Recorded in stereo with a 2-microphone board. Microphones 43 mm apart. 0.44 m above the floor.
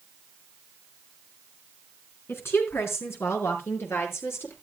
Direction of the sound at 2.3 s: 75° left (ahead or behind).